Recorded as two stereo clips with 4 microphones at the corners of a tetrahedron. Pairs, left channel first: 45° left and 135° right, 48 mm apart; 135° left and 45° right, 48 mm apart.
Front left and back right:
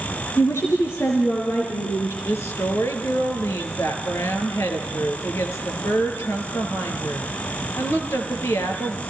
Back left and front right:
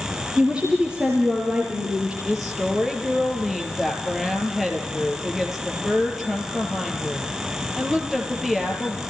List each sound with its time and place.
0.4 s a woman speaking: 30° left, 4 m
2.2 s a woman speaking: 45° left, 4.5 m